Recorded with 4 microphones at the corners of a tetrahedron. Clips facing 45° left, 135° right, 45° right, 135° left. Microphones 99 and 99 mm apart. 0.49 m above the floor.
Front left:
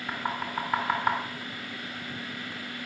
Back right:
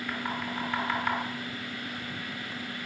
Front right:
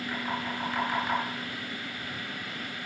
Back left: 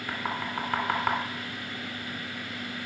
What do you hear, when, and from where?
0.1 s knocking: 95° left, 3.5 m